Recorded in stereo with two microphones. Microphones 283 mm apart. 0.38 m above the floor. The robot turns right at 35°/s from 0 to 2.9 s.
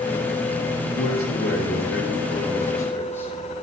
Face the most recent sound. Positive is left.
turn(degrees=170)